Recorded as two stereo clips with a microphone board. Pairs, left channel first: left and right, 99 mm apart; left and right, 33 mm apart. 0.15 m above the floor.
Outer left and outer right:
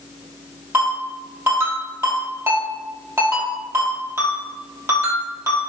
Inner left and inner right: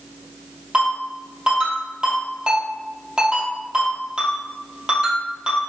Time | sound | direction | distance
0.7 | a ringtone | 30° right (ahead or behind) | 3 m